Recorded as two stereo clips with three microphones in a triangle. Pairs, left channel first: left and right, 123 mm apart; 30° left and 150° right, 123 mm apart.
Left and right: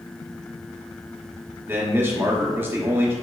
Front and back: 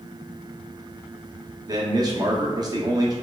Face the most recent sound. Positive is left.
turn(degrees=-145)